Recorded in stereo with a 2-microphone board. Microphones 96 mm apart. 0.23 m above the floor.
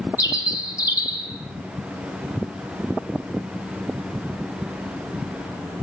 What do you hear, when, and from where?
0.2 s a bird: 35° left (ahead or behind), 3.5 m